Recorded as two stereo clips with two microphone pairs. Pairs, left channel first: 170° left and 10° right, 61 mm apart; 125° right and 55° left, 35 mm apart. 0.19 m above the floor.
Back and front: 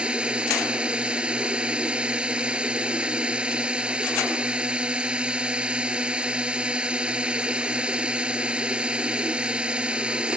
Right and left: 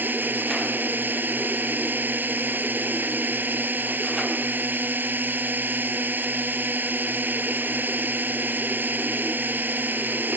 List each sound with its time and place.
0.0 s a drone: 60° left